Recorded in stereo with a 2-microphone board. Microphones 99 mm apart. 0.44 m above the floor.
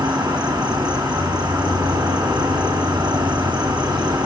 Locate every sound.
0.0 s an insect: 45° right (ahead or behind), 7 m